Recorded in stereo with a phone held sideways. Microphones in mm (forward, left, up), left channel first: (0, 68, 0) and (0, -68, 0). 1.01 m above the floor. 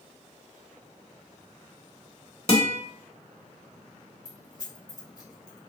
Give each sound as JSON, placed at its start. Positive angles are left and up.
{"t": 2.5, "sound": "a guitar", "side_deg": 50, "distance_m": 1.1}
{"t": 4.2, "sound": "keys jangling", "side_deg": 25, "distance_m": 1.4}